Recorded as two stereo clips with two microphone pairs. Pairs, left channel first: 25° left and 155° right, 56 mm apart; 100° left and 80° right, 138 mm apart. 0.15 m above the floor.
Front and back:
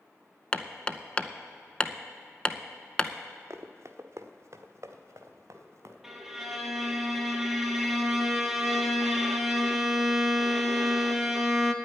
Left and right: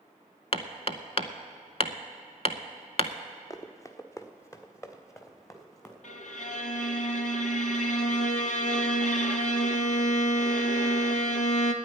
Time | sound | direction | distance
0.5 | hammering | 85° left | 0.6 m
3.5 | running footsteps | 165° left | 1.0 m
6.0 | a violin | 120° left | 1.0 m